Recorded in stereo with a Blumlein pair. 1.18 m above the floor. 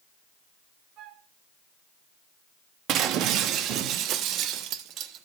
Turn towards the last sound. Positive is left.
turn(degrees=-35)